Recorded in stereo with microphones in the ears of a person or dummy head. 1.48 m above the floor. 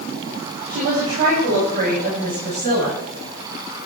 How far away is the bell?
I don't hear a bell.